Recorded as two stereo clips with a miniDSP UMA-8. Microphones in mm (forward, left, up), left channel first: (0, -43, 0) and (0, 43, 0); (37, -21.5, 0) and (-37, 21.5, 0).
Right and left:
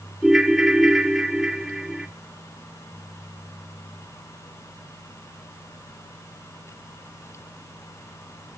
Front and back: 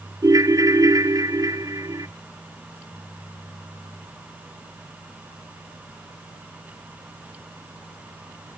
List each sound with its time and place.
0.2 s a ringtone: 175° left, 1.1 m